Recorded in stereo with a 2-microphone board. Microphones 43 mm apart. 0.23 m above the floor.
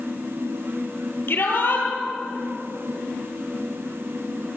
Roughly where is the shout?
Left.